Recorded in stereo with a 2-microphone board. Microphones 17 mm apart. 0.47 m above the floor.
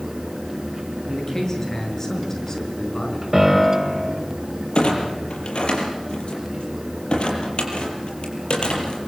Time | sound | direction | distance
1.1 | a man speaking | 25° left (ahead or behind) | 8 m
3.3 | a piano | 15° right (ahead or behind) | 5.5 m
4.8 | a clunk | 80° left | 6 m